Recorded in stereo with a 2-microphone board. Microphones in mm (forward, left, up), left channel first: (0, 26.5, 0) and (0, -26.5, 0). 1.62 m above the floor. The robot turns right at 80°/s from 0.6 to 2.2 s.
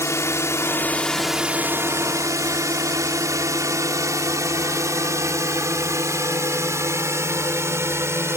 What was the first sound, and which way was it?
A drone, 60° left (ahead or behind).